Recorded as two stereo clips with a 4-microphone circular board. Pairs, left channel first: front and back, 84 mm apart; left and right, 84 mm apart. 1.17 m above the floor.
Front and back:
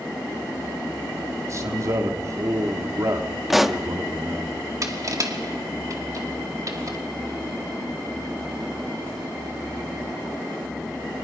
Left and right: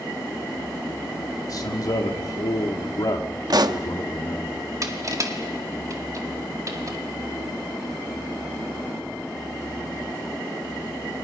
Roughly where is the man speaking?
Behind left.